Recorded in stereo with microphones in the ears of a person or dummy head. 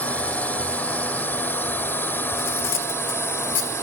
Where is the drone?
5° left (ahead or behind); by 3.8 s 15° left (ahead or behind).